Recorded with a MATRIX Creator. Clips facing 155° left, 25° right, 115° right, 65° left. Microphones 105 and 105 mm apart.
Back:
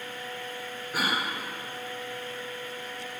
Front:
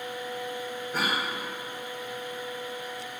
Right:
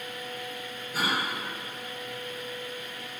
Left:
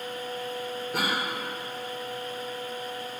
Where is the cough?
80° left, 1.9 m.